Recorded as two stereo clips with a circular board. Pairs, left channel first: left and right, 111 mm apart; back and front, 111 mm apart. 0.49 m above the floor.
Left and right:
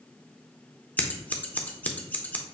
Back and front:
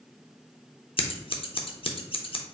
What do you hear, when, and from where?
1.0 s scissors: 165° left, 0.5 m